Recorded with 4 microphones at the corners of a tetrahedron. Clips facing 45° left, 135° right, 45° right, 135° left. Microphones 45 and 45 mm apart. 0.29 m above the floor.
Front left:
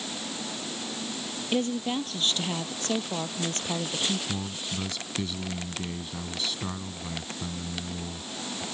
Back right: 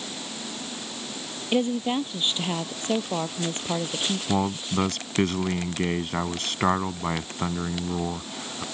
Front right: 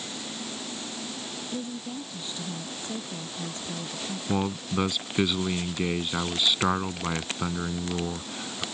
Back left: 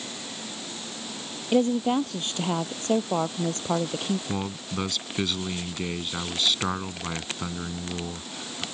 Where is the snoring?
I don't hear snoring.